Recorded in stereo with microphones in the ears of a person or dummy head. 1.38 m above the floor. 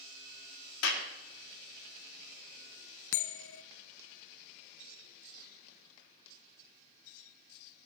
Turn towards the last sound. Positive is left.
turn(degrees=65)  # may be behind; listen again after turning